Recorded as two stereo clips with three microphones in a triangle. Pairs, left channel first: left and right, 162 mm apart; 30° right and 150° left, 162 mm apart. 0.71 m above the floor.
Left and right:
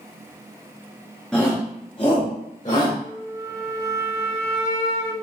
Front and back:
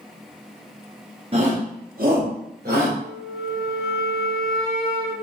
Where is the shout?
175° left, 0.8 m; by 2.9 s 130° left, 2.5 m.